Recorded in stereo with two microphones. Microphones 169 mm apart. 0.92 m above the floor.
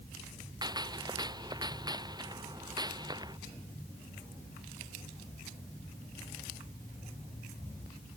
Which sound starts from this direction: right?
A gunshot, at 0.6 s.